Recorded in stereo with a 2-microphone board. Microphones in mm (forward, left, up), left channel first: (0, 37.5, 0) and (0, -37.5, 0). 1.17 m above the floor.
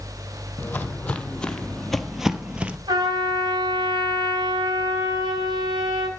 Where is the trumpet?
85° right, 4.5 m.